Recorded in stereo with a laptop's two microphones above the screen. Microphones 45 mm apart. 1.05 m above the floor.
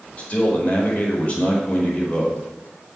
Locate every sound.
0.2 s a man speaking: 30° left (ahead or behind), 5 m